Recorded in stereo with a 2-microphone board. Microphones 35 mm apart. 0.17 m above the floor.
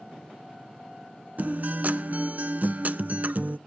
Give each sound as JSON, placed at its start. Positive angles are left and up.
{"t": 1.4, "sound": "a guitar", "side_deg": -50, "distance_m": 0.6}